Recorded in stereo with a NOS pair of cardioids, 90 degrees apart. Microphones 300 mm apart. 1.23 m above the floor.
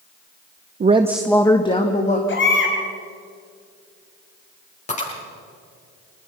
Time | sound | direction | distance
0.8 | a woman speaking | 30° right | 0.8 m
2.3 | a baby crying | 40° left | 4.5 m
4.9 | breaking glass | 25° left | 9.5 m